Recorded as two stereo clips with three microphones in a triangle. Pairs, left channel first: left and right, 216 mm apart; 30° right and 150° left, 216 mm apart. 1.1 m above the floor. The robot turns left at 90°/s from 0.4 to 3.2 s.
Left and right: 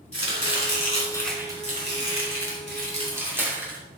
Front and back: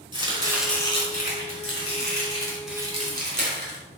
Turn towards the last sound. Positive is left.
turn(degrees=-170)